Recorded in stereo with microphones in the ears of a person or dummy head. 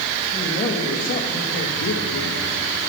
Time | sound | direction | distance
0.3 | a man speaking | 25° left (ahead or behind) | 1.6 m